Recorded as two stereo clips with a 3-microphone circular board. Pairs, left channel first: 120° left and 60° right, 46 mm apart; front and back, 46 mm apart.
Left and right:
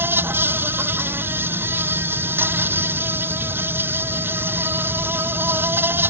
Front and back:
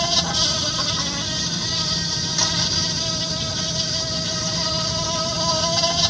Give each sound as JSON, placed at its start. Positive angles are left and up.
{"t": 0.0, "sound": "an insect", "azimuth_deg": -90}